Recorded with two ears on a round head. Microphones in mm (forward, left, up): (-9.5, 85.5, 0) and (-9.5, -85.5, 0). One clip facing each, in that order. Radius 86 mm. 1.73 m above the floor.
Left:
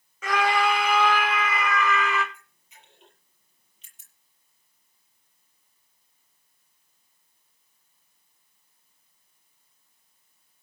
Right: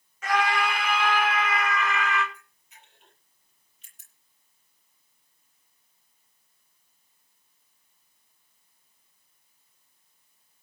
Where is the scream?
75° left (ahead or behind), 5.5 m; by 2.2 s 85° left, 7 m.